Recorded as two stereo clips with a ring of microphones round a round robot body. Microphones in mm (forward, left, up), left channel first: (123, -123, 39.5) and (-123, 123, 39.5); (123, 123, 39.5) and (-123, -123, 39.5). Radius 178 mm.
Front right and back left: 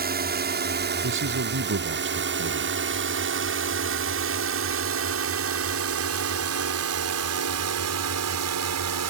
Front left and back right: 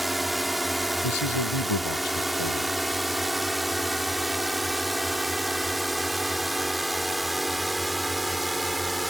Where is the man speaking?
75° left.